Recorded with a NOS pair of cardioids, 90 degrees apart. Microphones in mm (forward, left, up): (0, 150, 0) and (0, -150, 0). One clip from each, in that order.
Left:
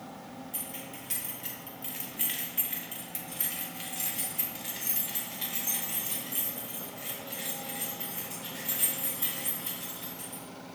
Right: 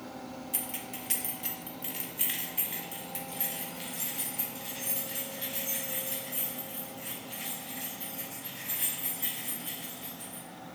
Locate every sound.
0.5 s keys jangling: 45° right, 1.6 m; by 10.4 s 45° left, 6.5 m